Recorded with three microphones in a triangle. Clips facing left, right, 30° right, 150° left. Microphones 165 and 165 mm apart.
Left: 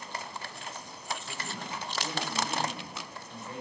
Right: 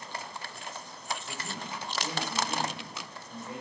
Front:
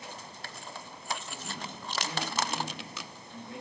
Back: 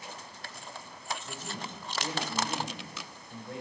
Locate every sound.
1.2 s a man speaking: 175° right, 5 m